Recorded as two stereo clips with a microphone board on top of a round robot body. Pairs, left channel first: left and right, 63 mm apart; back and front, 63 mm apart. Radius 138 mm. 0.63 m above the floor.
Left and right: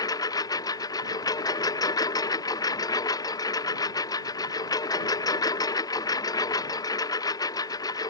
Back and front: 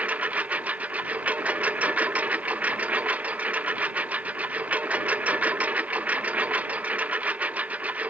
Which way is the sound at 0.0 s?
70° left.